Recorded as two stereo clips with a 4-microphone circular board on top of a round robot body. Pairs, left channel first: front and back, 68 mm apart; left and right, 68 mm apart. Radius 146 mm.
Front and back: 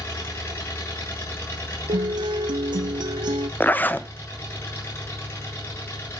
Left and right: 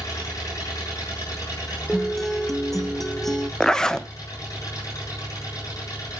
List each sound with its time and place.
0.0 s an engine running: 50° left, 8 m
1.9 s a guitar: straight behind, 0.6 m
3.6 s a zipper: 20° left, 1.1 m